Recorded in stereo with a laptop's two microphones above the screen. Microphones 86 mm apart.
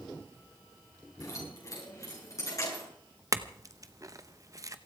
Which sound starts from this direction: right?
A clink, at 3.3 s.